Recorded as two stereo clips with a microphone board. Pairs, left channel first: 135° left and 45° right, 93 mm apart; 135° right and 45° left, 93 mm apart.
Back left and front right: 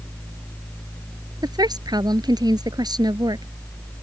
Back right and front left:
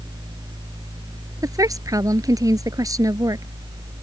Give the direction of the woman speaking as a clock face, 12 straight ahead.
12 o'clock.